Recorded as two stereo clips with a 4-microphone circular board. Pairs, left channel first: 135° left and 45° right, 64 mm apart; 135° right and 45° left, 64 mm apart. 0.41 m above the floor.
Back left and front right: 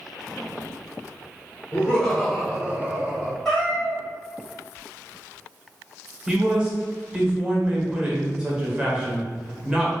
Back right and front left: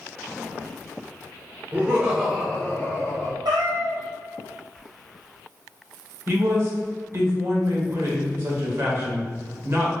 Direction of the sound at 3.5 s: 55° left.